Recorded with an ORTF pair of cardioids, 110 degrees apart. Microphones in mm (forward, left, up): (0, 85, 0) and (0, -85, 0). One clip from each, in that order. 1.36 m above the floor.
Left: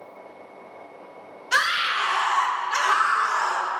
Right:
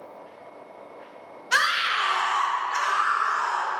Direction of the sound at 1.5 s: 5° right.